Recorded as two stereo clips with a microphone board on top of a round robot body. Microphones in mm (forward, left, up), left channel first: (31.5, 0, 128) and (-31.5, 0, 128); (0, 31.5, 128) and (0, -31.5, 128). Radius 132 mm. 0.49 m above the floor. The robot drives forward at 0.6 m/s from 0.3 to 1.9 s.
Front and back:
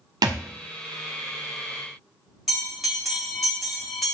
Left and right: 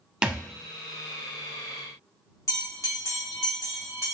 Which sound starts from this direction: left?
A bell, at 2.5 s.